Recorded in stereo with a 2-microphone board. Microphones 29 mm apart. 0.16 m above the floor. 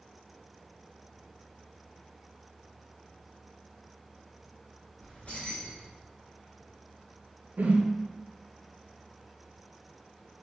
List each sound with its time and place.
5.0 s keys jangling: 60° left (ahead or behind), 1.2 m
7.6 s a whoosh: 75° right (ahead or behind), 0.6 m